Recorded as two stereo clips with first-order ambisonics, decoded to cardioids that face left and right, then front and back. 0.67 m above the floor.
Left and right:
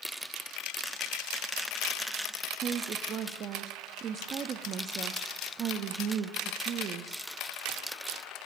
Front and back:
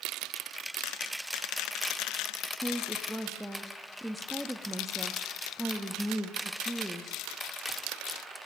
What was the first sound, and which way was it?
A woman speaking, 90° right.